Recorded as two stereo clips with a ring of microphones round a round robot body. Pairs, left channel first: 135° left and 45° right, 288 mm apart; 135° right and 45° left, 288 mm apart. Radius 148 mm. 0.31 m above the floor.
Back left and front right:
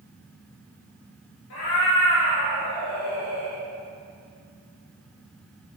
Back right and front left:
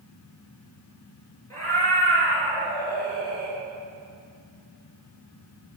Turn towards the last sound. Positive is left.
turn(degrees=-170)